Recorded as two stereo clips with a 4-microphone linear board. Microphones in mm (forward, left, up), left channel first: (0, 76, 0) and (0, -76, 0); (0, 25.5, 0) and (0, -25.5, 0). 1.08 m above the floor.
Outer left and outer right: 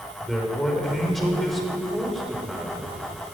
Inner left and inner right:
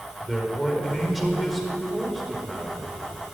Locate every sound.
0.2 s a man speaking: centre (ahead or behind), 4.5 m